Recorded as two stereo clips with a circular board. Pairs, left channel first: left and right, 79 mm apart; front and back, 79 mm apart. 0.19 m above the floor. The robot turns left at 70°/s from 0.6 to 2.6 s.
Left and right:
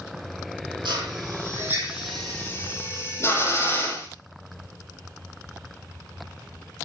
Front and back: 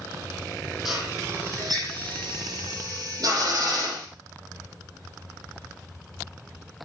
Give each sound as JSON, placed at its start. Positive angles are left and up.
{"t": 0.8, "sound": "a drill", "azimuth_deg": -95, "distance_m": 5.5}